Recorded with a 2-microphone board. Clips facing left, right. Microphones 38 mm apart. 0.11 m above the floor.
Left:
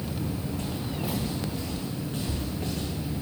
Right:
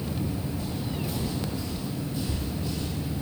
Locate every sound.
0.6 s footsteps: 75° left (ahead or behind), 0.6 m